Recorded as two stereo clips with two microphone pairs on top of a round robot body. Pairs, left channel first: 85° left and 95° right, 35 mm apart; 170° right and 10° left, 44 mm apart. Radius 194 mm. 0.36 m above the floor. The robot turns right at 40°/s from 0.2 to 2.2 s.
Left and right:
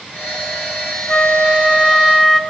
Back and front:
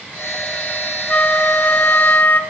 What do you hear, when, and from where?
1.1 s a flute: 130° left, 1.8 m; by 2.4 s 175° left, 1.8 m